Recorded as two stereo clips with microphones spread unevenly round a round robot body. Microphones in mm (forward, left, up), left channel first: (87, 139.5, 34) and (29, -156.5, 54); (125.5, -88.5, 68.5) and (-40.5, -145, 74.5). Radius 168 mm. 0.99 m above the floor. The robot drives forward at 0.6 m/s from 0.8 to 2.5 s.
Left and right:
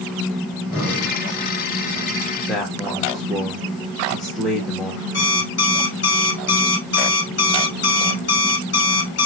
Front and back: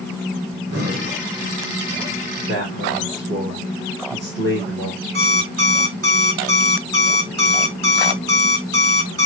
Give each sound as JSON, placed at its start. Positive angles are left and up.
{"t": 0.5, "sound": "breathing", "azimuth_deg": 175, "distance_m": 2.0}
{"t": 2.5, "sound": "a man speaking", "azimuth_deg": 165, "distance_m": 0.8}
{"t": 5.1, "sound": "an alarm clock", "azimuth_deg": 140, "distance_m": 1.0}